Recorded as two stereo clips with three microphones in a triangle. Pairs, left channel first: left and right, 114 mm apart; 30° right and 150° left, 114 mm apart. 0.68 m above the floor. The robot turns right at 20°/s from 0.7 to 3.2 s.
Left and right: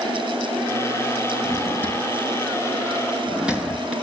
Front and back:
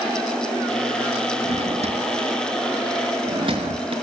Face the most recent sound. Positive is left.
turn(degrees=-170)